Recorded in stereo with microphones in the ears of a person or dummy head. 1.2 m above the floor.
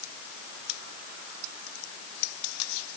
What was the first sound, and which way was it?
Only background noise.